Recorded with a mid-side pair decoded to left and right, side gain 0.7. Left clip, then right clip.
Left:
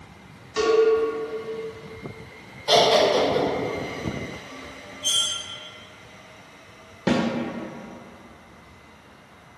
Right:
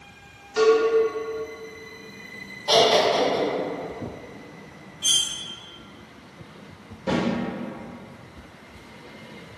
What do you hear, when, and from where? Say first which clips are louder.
0.6 s a cowbell: right 1 dB; 5° left, 1.2 m
2.7 s laughter: left 1 dB; straight ahead, 1.2 m
5.0 s cutlery clinking: right 1 dB; 60° right, 0.7 m
7.1 s a snare drum: left 2 dB; 45° left, 0.6 m